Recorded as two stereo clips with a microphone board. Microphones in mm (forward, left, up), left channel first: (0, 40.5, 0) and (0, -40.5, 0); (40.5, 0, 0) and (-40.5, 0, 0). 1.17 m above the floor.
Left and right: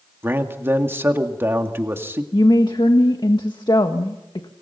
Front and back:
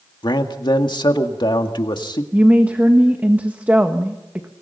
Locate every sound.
0.2 s a man speaking: 30° right, 2.0 m
2.3 s a woman speaking: 110° left, 1.6 m